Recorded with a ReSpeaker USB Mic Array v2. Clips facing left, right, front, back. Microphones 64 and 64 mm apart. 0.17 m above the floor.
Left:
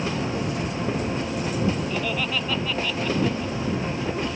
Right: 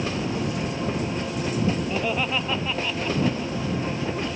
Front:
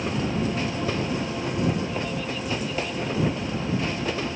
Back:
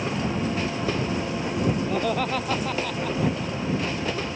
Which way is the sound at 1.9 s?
160° right.